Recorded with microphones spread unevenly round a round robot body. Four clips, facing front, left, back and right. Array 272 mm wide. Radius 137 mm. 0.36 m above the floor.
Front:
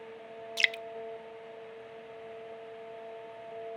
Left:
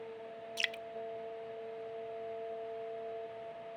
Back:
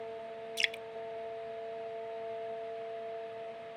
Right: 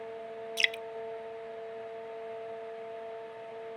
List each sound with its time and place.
0.6 s dripping: 30° right